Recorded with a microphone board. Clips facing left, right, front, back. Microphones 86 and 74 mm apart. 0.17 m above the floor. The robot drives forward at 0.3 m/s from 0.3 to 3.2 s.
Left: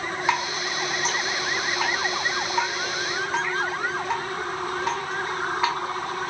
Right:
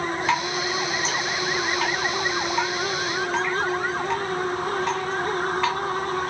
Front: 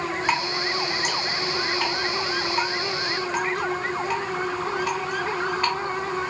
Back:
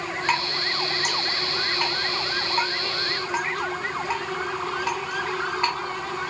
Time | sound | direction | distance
0.3 | dripping | 55° left | 1.3 m